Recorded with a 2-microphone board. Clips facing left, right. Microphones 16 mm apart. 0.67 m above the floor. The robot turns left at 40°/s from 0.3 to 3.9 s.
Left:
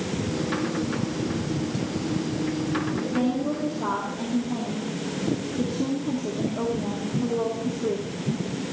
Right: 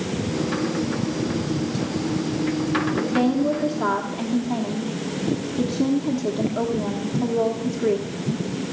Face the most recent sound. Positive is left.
turn(degrees=-100)